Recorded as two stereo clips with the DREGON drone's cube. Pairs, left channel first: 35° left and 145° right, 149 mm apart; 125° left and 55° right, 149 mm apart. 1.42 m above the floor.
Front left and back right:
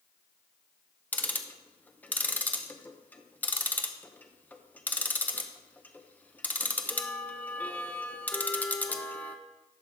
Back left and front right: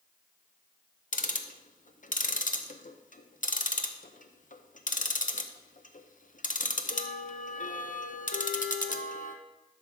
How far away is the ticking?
About 0.7 m.